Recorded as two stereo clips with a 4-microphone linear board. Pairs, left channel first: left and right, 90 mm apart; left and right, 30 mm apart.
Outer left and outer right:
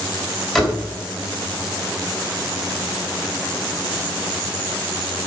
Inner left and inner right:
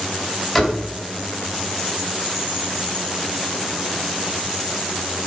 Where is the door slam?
5° left (ahead or behind), 1.7 m.